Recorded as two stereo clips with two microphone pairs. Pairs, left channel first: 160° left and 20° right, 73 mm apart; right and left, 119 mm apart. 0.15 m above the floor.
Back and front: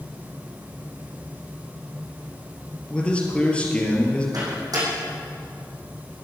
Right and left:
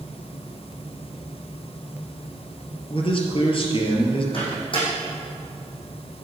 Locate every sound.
2.9 s a man speaking: 125° right, 3 m
4.3 s a microwave: 50° right, 5.5 m